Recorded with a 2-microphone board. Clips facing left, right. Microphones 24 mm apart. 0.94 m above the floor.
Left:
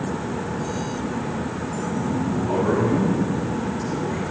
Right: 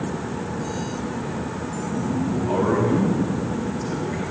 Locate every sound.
1.9 s a man speaking: 20° right (ahead or behind), 4.5 m